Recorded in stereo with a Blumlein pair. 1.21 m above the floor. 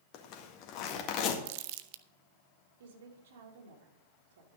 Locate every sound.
0.1 s a zipper: 40° left, 1.8 m
1.4 s crumpling: 50° right, 0.7 m
2.8 s a woman speaking: 60° right, 3 m